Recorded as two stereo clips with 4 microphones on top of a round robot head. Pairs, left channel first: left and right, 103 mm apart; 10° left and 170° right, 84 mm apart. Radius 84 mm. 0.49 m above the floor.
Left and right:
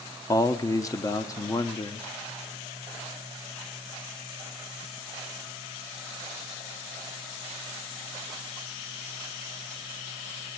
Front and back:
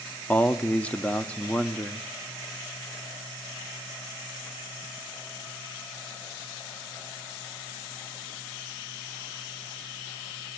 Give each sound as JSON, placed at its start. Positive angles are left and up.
{"t": 0.3, "sound": "a man speaking", "azimuth_deg": 75, "distance_m": 0.9}